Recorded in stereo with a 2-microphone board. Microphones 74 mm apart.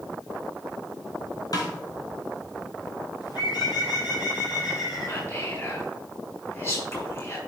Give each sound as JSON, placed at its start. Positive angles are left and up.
{"t": 1.5, "sound": "a snare drum", "side_deg": 55, "distance_m": 2.5}
{"t": 3.2, "sound": "a bird", "side_deg": 70, "distance_m": 4.0}
{"t": 5.0, "sound": "whispering", "side_deg": 35, "distance_m": 4.0}